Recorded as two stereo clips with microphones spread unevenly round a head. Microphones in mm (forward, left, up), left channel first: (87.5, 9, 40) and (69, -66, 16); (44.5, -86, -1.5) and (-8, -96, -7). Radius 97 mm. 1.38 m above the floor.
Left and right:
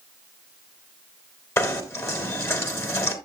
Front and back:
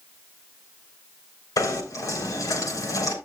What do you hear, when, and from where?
1.6 s knocking: 20° left, 4 m